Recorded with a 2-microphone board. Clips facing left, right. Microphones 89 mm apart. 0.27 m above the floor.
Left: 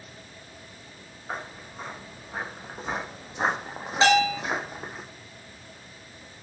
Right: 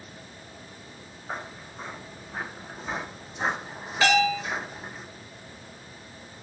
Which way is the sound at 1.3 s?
10° left (ahead or behind).